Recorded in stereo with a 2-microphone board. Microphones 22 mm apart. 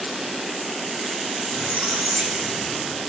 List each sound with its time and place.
1.5 s a squeak: 80° right, 2.5 m